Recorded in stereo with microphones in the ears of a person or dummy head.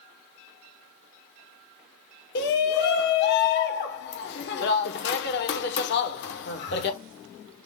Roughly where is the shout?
Left.